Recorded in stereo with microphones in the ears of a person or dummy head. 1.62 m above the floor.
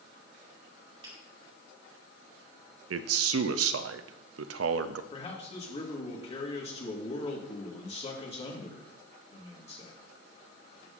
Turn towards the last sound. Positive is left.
turn(degrees=30)  # may be behind; listen again after turning